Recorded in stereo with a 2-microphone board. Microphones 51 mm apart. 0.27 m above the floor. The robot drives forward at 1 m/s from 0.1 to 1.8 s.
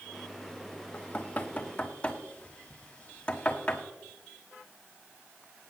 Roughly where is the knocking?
Left.